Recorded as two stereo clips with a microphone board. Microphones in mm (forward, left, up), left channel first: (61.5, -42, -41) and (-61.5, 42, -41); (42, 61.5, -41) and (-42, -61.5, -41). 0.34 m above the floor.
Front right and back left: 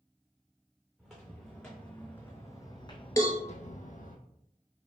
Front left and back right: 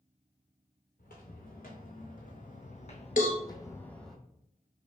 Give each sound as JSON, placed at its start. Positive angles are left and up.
{"t": 1.0, "sound": "footsteps", "azimuth_deg": 60, "distance_m": 1.6}
{"t": 3.2, "sound": "a cowbell", "azimuth_deg": 30, "distance_m": 0.9}